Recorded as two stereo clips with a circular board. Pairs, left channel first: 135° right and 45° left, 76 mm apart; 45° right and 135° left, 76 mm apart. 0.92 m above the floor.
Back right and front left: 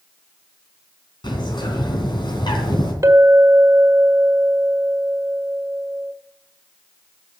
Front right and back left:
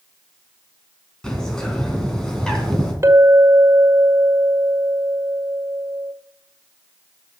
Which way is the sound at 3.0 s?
85° left.